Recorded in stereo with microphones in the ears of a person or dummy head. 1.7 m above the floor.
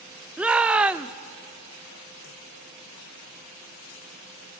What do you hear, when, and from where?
0.4 s a shout: 5° right (ahead or behind), 0.6 m